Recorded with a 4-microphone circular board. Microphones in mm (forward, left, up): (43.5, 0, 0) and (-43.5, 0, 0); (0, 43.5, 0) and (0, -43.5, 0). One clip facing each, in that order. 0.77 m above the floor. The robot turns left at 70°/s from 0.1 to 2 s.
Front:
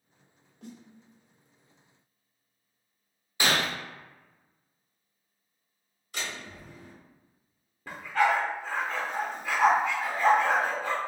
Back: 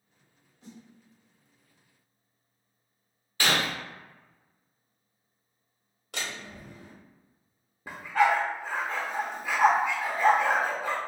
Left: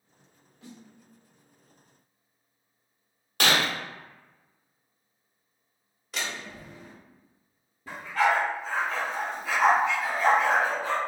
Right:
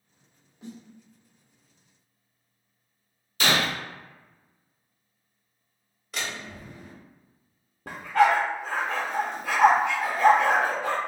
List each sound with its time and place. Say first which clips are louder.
0.6 s a snare drum: front 3 dB, right 6 dB; 15° right, 0.8 m; by 0.8 s 30° right, 0.8 m
3.4 s breaking glass: even, even; 75° left, 0.8 m
6.1 s a door slam: even, even; straight behind, 1.2 m
7.9 s a dog barking: back 1 dB, right 4 dB; 105° right, 0.7 m